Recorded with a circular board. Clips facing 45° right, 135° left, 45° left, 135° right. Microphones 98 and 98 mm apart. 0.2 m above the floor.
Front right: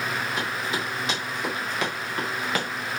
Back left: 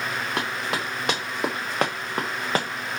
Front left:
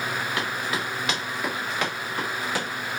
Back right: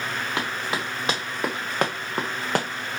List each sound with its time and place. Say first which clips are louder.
0.4 s running footsteps: back left 1 dB, even; 160° left, 2 m; by 2.7 s 165° right, 1.2 m